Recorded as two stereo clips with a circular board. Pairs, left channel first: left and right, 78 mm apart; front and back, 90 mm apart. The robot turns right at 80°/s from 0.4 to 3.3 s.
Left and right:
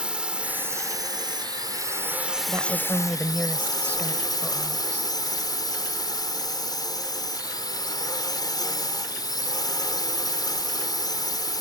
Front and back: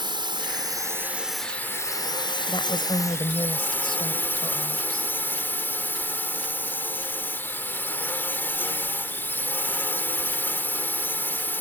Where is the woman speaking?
45° right; by 5.1 s 20° left.